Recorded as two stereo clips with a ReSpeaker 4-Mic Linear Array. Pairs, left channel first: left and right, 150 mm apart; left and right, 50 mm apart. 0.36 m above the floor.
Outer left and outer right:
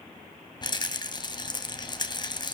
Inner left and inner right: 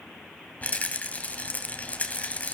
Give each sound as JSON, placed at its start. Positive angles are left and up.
{"t": 0.6, "sound": "a rattle", "side_deg": 30, "distance_m": 2.0}